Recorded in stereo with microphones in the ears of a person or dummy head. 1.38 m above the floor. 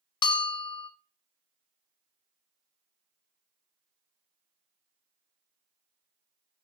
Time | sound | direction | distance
0.2 | a bell | 25° left (ahead or behind) | 0.6 m